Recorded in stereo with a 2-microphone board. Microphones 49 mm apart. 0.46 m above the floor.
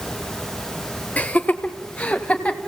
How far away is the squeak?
I don't hear a squeak.